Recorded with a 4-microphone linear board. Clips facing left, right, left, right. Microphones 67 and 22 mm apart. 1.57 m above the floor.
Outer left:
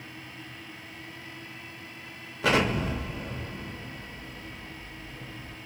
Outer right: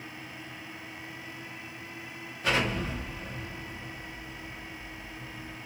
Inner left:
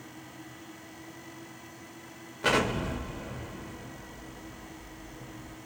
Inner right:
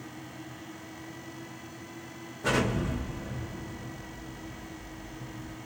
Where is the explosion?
80° left, 0.6 m.